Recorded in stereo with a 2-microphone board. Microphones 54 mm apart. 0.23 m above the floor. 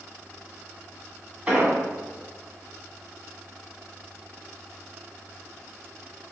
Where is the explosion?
20° right (ahead or behind), 1.2 m.